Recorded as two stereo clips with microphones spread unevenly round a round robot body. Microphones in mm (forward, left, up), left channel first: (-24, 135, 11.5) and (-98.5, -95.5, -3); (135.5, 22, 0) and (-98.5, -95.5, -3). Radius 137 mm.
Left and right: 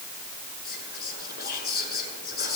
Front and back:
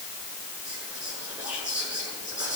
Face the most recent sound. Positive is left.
turn(degrees=120)